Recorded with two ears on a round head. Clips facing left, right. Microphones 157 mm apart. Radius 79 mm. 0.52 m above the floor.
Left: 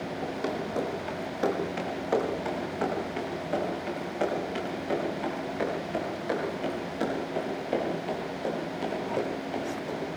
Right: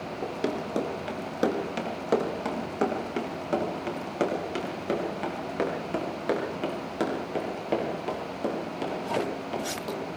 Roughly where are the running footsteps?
Right.